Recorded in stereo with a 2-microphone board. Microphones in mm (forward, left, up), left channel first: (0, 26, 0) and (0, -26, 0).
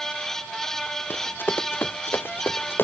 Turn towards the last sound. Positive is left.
turn(degrees=45)  # may be behind; listen again after turning